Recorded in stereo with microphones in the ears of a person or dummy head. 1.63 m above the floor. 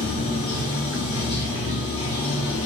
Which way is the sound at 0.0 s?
30° left (ahead or behind).